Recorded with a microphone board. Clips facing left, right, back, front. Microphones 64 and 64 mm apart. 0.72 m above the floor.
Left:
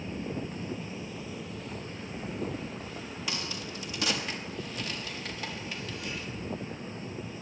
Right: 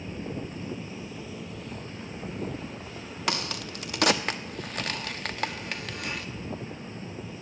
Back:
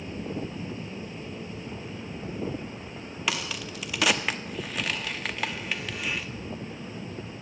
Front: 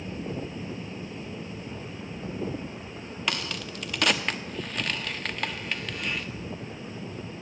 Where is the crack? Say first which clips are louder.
Right 8 dB, even; 95° right, 0.6 m.